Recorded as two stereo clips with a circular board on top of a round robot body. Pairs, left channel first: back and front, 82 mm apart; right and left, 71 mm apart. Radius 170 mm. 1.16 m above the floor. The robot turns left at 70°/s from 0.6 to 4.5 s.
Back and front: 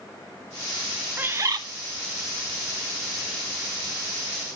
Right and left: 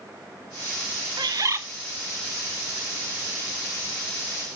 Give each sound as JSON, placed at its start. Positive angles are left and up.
{"t": 1.2, "sound": "a bird", "azimuth_deg": 70, "distance_m": 1.2}